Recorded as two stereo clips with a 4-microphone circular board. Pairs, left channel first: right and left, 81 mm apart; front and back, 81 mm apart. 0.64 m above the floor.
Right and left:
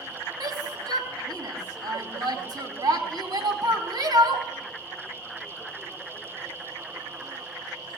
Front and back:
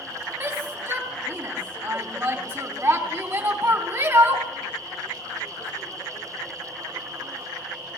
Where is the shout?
120° left, 4 m.